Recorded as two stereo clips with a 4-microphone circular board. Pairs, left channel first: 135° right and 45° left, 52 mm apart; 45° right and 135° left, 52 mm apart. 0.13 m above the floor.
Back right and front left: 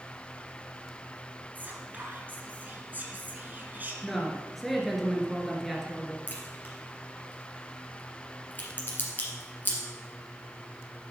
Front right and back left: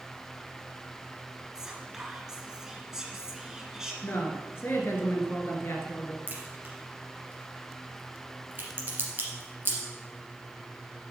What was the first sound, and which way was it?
Whispering, 60° left.